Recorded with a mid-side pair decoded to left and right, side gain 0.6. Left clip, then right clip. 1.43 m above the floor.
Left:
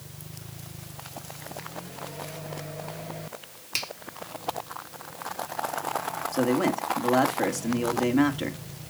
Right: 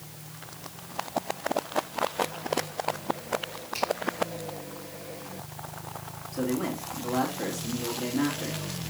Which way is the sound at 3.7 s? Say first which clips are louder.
Right 2 dB; 60° left.